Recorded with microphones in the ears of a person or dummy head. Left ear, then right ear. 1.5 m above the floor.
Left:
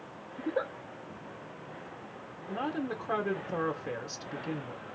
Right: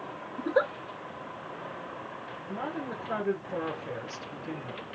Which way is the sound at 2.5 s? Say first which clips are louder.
Left 2 dB; 35° left (ahead or behind).